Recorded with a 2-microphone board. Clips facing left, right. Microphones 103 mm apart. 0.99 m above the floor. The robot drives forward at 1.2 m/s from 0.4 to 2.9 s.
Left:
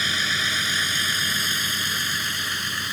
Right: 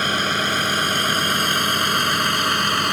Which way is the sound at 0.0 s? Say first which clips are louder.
Right 6 dB; 55° right (ahead or behind).